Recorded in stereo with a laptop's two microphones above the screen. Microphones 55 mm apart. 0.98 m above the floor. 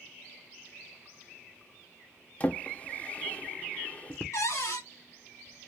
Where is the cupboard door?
70° left (ahead or behind), 1.5 m.